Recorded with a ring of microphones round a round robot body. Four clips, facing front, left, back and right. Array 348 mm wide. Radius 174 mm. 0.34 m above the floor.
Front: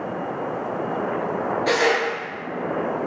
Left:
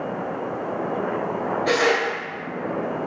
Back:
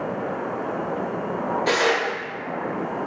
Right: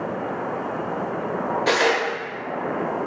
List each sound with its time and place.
1.7 s tearing paper: 95° right, 0.7 m